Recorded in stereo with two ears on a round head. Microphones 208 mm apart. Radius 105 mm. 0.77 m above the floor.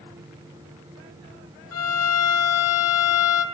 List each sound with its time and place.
1.7 s a violin: 70° left (ahead or behind), 1.4 m